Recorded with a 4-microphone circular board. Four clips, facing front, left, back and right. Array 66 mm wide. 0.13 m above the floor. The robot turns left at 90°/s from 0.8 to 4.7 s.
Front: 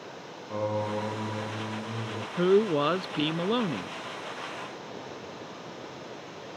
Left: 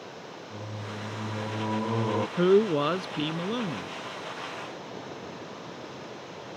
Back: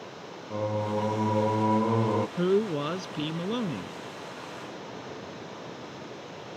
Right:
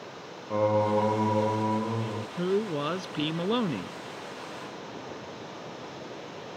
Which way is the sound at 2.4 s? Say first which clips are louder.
Left 6 dB, front 7 dB; 70° left.